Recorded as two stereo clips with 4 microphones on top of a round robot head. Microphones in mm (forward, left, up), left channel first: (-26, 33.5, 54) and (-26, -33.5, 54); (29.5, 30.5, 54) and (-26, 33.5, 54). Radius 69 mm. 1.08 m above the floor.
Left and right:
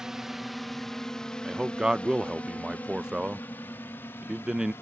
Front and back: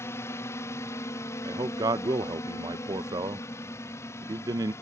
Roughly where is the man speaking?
Behind.